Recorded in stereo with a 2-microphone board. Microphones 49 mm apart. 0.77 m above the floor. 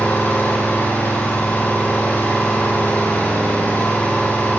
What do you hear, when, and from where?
0.0 s an engine running: 45° left (ahead or behind), 8.5 m